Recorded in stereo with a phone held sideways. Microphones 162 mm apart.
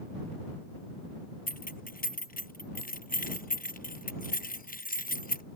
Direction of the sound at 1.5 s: 60° left (ahead or behind).